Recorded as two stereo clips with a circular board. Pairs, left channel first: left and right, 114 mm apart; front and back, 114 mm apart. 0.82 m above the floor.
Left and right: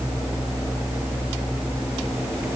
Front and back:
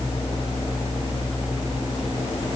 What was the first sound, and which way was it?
Only background noise.